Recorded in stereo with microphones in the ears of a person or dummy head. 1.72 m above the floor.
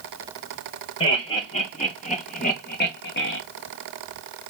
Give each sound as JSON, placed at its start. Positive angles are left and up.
{"t": 1.0, "sound": "laughter", "side_deg": 25, "distance_m": 2.0}